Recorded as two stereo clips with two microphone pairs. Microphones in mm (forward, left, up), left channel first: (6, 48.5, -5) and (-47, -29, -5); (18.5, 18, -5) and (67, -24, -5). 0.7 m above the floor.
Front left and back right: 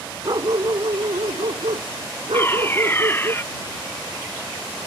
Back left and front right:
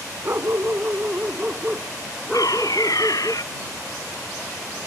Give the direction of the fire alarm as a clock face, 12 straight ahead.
8 o'clock.